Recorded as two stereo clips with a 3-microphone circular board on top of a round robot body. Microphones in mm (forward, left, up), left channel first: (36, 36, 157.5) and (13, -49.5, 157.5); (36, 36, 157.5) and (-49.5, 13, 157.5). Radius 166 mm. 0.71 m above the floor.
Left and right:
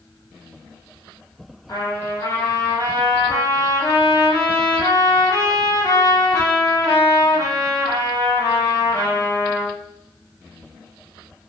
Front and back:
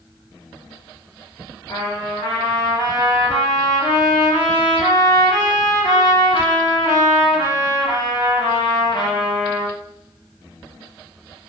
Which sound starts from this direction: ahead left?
A trumpet, at 1.7 s.